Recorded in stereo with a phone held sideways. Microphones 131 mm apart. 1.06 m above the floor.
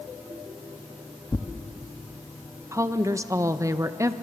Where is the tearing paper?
25° left (ahead or behind), 0.9 m.